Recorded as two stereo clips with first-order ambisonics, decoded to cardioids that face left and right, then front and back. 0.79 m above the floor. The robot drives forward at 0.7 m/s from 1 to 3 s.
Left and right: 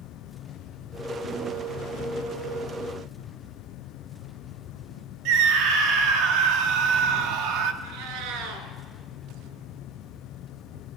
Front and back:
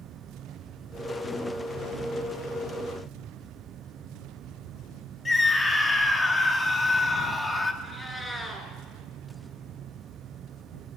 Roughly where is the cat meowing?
Right.